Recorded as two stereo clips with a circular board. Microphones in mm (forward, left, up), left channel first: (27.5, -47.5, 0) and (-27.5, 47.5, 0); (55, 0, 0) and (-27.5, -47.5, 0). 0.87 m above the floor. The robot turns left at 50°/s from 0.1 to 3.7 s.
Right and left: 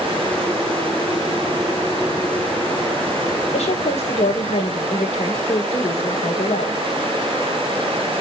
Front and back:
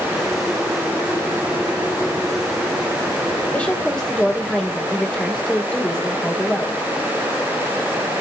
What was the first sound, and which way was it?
A woman speaking, 45° right.